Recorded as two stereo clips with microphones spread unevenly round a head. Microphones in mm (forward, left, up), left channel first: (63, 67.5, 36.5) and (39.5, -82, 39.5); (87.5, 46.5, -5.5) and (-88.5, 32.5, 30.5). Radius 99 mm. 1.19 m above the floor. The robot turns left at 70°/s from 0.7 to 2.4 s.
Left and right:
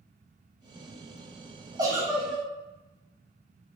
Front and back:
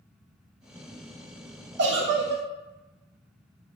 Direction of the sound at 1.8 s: 160° right.